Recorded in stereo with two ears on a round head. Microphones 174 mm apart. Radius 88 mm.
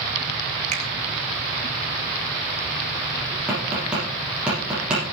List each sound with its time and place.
0.7 s a finger snap: 40° right (ahead or behind), 4 m
3.5 s tapping: 5° right (ahead or behind), 8 m